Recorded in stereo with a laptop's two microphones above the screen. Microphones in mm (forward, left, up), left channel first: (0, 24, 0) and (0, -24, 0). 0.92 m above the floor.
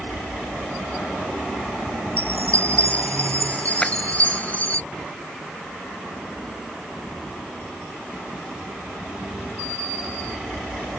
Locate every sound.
2.2 s a chime: 30° left (ahead or behind)
3.8 s a clap: 20° left (ahead or behind)